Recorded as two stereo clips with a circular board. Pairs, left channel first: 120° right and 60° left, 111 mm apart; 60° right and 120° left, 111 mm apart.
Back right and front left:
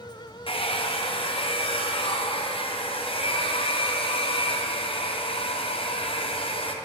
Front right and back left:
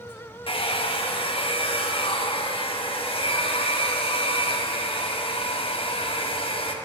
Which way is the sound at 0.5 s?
90° right.